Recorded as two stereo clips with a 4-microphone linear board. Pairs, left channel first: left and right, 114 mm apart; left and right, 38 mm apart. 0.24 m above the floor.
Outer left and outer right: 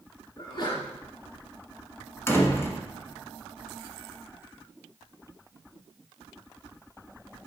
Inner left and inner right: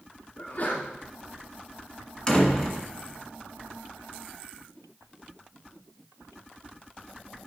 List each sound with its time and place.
0.4 s a sneeze: 50° left (ahead or behind), 2.5 m
2.3 s a door slam: 20° left (ahead or behind), 1.5 m